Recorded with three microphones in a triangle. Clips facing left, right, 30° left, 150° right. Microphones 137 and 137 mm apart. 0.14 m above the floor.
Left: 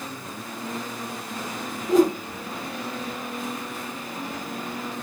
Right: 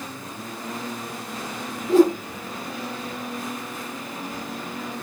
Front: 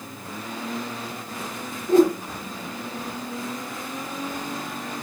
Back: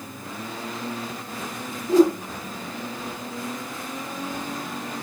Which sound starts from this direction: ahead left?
A whoosh, at 1.9 s.